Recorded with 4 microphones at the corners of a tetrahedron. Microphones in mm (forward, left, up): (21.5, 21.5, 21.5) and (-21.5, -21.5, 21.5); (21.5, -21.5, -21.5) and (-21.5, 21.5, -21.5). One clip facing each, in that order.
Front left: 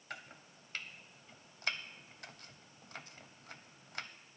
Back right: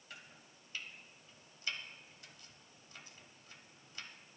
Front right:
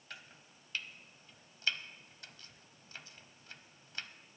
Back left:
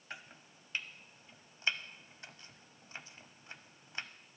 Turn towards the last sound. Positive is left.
turn(degrees=70)